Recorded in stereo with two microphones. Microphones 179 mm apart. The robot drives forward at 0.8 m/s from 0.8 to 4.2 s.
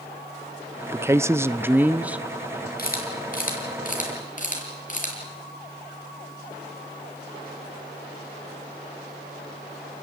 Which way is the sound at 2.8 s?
55° left (ahead or behind).